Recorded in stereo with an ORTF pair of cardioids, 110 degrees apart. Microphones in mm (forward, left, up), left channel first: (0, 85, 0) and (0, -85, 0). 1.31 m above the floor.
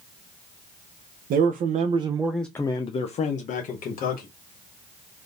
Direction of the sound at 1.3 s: 65° right.